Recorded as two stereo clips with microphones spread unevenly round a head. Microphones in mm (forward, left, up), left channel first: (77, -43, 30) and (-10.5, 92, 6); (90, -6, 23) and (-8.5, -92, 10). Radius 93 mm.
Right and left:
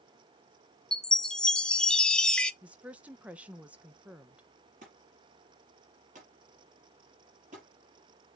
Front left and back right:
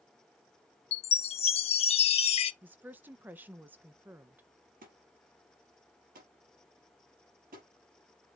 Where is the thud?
175° left, 4.5 m.